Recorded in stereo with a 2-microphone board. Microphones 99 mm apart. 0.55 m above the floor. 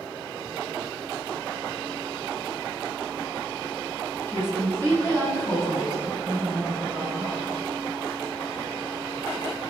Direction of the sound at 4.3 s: 20° left (ahead or behind).